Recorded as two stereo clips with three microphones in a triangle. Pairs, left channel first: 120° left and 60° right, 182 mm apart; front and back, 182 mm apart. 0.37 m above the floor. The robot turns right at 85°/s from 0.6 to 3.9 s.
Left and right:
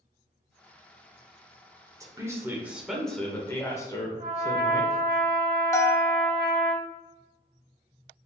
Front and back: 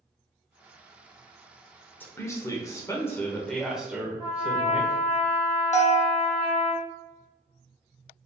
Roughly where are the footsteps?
I don't hear footsteps.